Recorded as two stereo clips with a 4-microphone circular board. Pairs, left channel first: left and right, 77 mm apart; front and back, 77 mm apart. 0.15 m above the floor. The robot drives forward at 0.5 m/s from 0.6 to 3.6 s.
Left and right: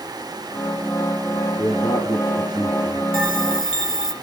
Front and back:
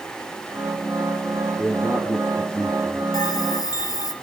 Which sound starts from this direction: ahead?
A bell, at 3.1 s.